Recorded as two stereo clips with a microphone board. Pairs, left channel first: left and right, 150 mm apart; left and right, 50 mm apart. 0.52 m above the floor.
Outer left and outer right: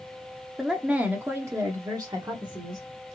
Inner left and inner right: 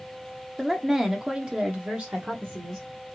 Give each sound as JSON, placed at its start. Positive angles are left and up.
{"t": 0.6, "sound": "a woman speaking", "side_deg": 0, "distance_m": 0.9}